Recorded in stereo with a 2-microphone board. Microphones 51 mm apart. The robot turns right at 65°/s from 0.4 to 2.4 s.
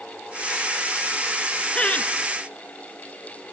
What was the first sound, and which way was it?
Laughter, 20° left (ahead or behind).